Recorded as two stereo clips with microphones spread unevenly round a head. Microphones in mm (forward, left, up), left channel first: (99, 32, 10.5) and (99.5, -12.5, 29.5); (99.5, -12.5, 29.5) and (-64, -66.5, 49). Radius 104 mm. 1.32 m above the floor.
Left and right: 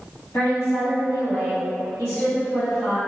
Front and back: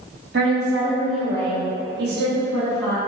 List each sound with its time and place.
0.3 s a woman speaking: 160° left, 1.0 m